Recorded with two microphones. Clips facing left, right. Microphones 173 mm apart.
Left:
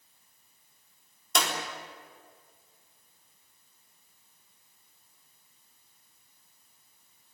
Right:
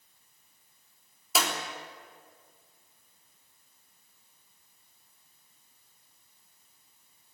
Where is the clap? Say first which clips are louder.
Even; 5° right (ahead or behind), 3.5 m.